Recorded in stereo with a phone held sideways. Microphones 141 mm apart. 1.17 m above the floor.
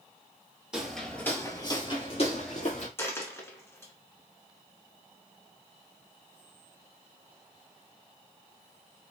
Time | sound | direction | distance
0.7 | footsteps | 5° right (ahead or behind) | 1.6 m
3.0 | a dropped coin | 15° left (ahead or behind) | 1.4 m